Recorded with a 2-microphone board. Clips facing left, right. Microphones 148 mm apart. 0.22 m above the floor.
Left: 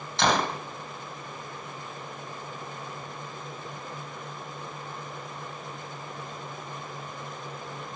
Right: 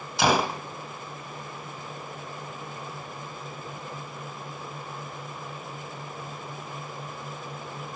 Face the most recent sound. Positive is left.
turn(degrees=-10)  # may be behind; listen again after turning